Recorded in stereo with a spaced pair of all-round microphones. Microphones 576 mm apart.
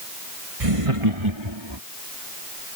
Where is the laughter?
70° right (ahead or behind); by 1.8 s 45° right (ahead or behind).